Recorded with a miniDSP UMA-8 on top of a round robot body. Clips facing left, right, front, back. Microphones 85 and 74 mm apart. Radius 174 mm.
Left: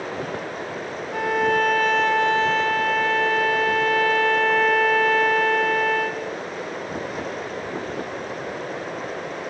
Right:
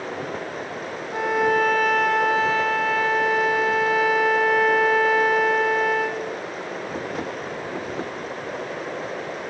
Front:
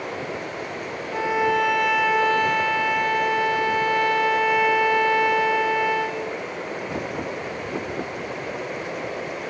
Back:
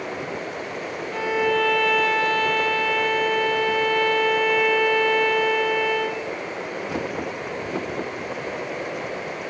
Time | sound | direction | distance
1.1 | a violin | 25° right | 1.0 m